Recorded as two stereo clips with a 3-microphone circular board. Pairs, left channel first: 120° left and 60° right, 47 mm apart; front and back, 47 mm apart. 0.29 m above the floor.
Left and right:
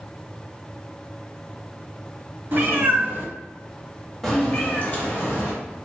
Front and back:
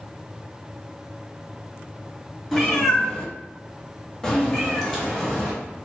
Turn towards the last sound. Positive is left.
turn(degrees=85)